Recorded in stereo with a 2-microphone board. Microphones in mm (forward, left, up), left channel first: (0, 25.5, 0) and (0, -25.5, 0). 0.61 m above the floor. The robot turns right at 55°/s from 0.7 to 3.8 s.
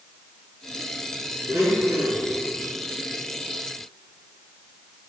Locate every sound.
1.5 s a blender: 70° right, 5.5 m; by 2.4 s 20° right, 5.5 m